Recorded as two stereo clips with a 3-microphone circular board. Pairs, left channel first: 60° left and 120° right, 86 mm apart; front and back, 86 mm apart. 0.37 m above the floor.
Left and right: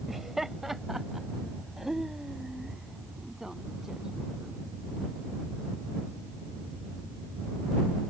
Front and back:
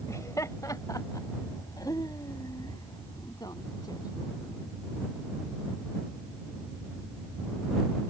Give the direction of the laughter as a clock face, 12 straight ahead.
1 o'clock.